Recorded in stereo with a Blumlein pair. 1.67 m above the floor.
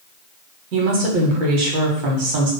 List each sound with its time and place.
0.7 s a woman speaking: 40° right, 1.4 m